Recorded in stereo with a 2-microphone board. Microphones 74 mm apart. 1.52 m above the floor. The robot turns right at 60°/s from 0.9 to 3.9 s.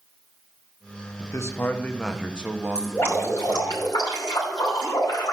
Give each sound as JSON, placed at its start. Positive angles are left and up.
{"t": 1.2, "sound": "a man speaking", "azimuth_deg": 120, "distance_m": 1.3}
{"t": 2.8, "sound": "dripping", "azimuth_deg": 15, "distance_m": 5.5}